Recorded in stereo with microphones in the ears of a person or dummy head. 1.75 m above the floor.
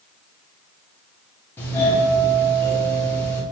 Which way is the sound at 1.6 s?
10° left (ahead or behind).